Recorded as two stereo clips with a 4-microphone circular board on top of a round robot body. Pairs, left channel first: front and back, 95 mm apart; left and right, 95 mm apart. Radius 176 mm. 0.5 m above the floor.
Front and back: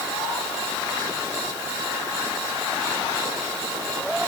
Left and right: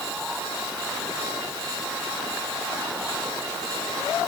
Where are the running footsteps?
I don't hear running footsteps.